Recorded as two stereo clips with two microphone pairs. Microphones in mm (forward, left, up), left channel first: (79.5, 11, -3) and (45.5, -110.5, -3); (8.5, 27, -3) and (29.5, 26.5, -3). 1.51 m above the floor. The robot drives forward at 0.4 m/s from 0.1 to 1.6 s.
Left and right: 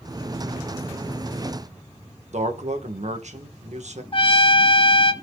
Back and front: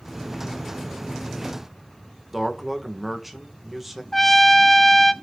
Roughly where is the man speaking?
Right.